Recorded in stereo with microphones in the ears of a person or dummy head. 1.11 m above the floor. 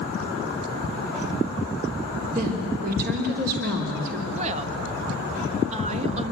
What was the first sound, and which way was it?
A woman speaking, 45° right (ahead or behind).